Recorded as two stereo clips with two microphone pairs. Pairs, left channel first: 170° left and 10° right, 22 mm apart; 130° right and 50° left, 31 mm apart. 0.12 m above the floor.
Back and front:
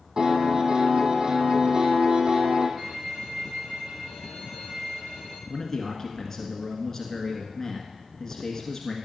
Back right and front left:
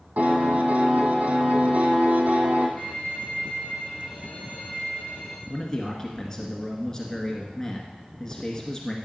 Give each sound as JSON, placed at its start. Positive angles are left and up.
{"t": 0.2, "sound": "a piano", "azimuth_deg": 25, "distance_m": 2.0}
{"t": 2.8, "sound": "a violin", "azimuth_deg": -60, "distance_m": 3.5}
{"t": 5.5, "sound": "a man speaking", "azimuth_deg": -165, "distance_m": 1.6}